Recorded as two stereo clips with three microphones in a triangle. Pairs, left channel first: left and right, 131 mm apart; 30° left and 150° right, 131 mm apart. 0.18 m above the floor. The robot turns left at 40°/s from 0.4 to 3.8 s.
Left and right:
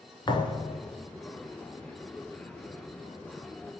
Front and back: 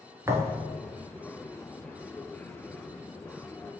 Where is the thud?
145° left, 0.8 m; by 0.8 s 125° left, 0.8 m.